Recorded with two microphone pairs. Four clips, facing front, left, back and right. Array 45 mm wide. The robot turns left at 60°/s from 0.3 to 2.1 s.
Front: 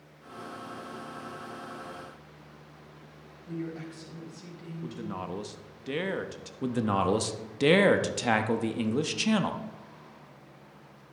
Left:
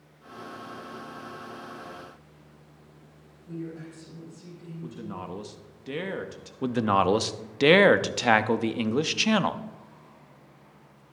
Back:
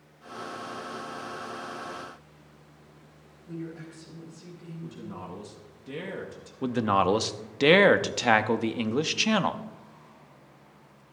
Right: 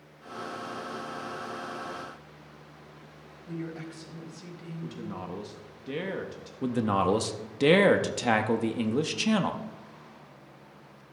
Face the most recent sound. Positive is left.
turn(degrees=140)